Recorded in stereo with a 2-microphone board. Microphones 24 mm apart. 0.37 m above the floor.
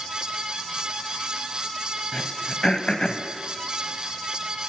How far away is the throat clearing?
About 0.5 m.